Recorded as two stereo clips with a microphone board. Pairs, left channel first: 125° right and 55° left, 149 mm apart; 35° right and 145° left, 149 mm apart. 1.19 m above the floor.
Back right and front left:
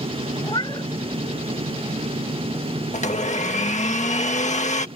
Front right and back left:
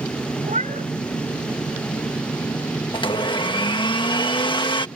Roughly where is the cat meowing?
Behind.